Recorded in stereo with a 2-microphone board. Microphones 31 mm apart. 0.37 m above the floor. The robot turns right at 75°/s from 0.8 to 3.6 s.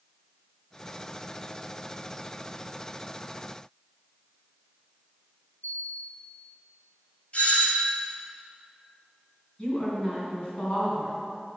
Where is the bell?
85° left, 1.8 m.